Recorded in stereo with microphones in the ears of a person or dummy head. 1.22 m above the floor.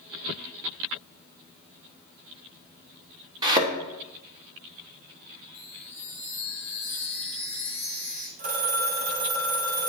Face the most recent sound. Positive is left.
turn(degrees=-50)  # may be behind; listen again after turning